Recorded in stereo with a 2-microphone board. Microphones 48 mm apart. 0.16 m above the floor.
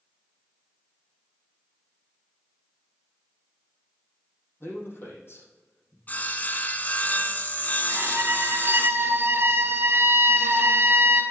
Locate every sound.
4.6 s a man speaking: 55° left (ahead or behind), 5 m
6.1 s sawing: 40° left (ahead or behind), 0.9 m
7.9 s a violin: 55° right (ahead or behind), 2 m